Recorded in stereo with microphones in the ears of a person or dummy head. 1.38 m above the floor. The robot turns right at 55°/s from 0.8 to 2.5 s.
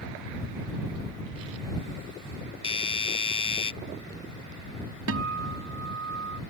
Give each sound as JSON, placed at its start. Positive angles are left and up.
{"t": 2.6, "sound": "a doorbell", "side_deg": 30}
{"t": 5.1, "sound": "a guitar", "side_deg": -85}